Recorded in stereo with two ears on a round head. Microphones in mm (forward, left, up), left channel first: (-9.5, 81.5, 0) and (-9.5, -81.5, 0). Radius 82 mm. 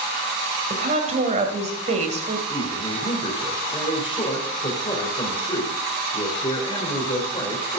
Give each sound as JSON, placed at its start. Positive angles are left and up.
{"t": 0.7, "sound": "a woman speaking", "side_deg": -40, "distance_m": 2.5}
{"t": 2.5, "sound": "a man speaking", "side_deg": 25, "distance_m": 3.0}